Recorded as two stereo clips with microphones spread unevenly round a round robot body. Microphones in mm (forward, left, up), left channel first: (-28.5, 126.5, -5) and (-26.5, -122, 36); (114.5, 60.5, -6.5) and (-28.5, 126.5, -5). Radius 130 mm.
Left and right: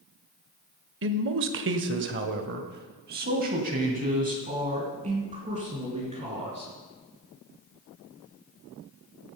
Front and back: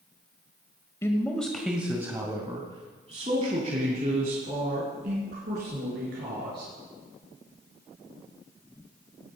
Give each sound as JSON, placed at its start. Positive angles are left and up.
{"t": 1.0, "sound": "a man speaking", "azimuth_deg": -90, "distance_m": 1.3}